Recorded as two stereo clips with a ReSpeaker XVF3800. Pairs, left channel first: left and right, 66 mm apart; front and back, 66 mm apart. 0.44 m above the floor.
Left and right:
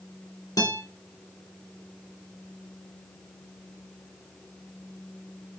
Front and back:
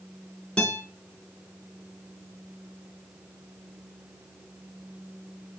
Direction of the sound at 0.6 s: 75° left.